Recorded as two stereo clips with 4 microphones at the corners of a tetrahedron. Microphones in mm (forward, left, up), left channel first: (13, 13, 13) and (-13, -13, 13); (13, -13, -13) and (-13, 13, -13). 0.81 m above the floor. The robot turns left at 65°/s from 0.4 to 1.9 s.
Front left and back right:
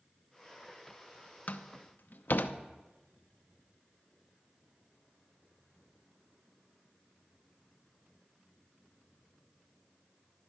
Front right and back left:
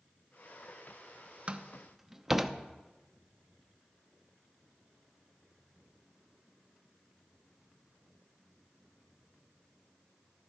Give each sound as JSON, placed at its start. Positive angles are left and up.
{"t": 1.5, "sound": "a door slam", "azimuth_deg": 80, "distance_m": 0.7}